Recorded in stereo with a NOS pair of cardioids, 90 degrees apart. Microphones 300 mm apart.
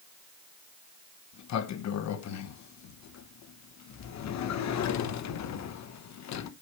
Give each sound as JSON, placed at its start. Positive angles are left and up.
{"t": 1.3, "sound": "a sliding door", "azimuth_deg": 65, "distance_m": 1.0}